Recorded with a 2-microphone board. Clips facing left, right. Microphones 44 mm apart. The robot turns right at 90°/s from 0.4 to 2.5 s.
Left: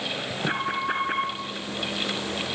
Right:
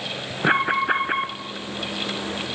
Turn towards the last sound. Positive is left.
turn(degrees=90)